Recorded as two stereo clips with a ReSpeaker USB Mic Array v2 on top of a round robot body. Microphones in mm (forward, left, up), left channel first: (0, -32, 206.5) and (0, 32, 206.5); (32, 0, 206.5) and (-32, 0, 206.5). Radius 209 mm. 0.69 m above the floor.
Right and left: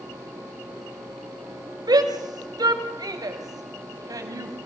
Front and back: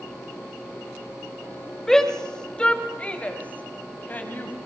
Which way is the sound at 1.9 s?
85° left.